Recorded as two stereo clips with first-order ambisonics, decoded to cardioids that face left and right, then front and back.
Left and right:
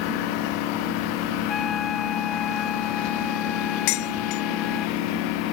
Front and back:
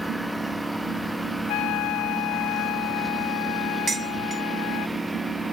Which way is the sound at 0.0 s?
95° left.